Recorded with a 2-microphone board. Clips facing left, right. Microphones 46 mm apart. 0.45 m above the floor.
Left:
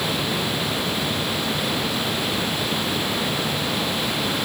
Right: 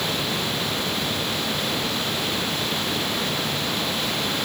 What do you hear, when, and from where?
Only background noise.